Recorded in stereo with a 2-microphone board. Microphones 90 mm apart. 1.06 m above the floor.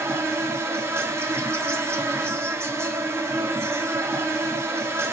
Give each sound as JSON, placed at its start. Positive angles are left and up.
{"t": 0.0, "sound": "an insect", "side_deg": -30, "distance_m": 0.8}